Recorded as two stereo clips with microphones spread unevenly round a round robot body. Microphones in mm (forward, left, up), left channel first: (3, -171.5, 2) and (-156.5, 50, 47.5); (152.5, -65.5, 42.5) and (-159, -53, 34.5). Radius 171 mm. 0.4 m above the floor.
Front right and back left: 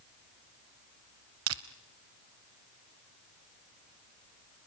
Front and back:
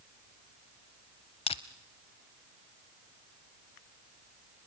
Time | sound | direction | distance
1.5 | crushing | 70° left | 0.5 m